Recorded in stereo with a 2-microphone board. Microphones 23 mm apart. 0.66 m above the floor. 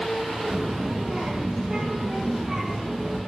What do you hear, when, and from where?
0.5 s a child speaking: 10° right (ahead or behind), 1.2 m; by 3.2 s 35° right (ahead or behind), 2.5 m